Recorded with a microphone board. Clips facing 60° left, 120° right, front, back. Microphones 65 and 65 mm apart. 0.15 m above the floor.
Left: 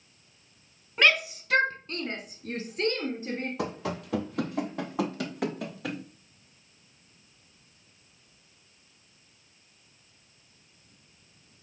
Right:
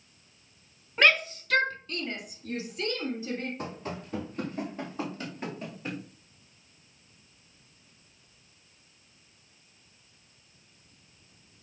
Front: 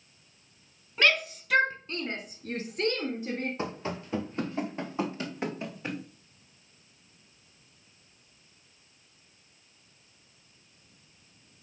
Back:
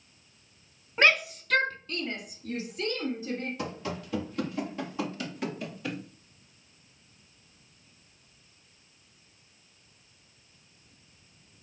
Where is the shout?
155° left, 1.1 m; by 3.5 s 20° left, 3 m.